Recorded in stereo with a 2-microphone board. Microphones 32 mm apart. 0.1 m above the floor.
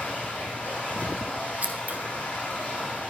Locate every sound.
0.0 s running water: 50° left (ahead or behind), 5.5 m
1.6 s scissors: 55° right (ahead or behind), 1.2 m